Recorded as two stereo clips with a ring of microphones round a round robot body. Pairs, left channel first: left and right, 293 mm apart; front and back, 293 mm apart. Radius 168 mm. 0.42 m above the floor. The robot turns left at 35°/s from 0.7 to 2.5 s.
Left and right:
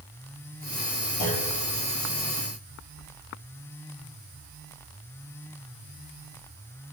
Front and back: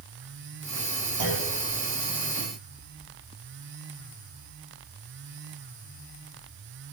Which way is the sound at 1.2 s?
145° left.